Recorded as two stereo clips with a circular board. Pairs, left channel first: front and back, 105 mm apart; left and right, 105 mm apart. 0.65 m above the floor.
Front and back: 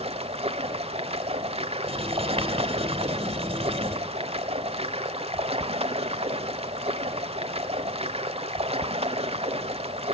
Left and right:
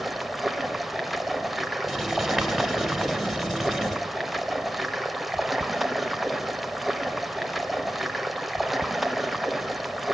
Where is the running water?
Straight behind, 1.1 m.